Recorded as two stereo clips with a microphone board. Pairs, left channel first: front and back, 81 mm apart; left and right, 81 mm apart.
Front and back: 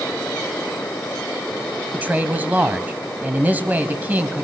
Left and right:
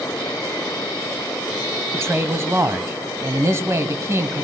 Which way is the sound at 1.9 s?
125° right.